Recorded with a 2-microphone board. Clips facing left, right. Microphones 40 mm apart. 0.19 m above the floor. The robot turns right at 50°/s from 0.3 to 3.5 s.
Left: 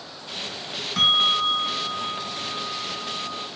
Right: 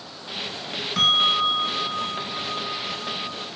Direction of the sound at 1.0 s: 175° right.